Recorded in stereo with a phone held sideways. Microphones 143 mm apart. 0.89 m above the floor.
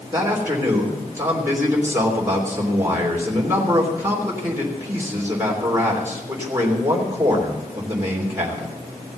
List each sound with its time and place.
0.1 s a man speaking: 20° right (ahead or behind), 3 m